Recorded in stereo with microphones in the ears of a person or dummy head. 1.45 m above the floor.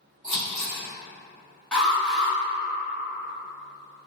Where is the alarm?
10° left (ahead or behind), 1.0 m.